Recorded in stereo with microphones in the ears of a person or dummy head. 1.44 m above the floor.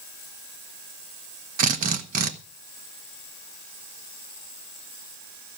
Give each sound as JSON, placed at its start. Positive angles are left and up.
{"t": 1.6, "sound": "a drill", "side_deg": -50, "distance_m": 1.2}